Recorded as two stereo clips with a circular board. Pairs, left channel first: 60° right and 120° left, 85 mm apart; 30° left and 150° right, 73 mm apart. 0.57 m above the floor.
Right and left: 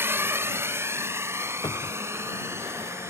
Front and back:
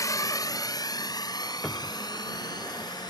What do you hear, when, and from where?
0.0 s a drone: 60° left
1.6 s a cupboard door: 50° right